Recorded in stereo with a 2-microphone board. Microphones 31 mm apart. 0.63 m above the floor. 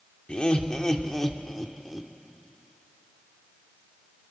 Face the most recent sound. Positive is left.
turn(degrees=-5)  # may be behind; listen again after turning